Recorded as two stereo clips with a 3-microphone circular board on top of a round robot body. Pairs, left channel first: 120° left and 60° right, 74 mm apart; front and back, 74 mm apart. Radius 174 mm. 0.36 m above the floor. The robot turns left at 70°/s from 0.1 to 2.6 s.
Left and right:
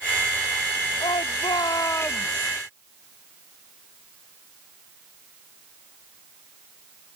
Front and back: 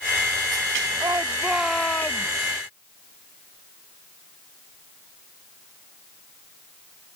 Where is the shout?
135° left; by 2.5 s 30° left.